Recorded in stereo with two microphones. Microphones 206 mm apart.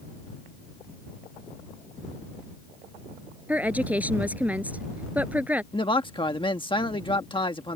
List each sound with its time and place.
3.5 s a woman speaking: 5° right (ahead or behind)
5.7 s a man speaking: 25° left (ahead or behind)